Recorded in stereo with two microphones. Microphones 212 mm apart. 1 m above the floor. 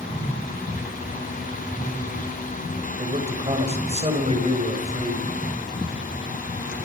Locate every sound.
3.0 s a man speaking: 30° right (ahead or behind), 6 m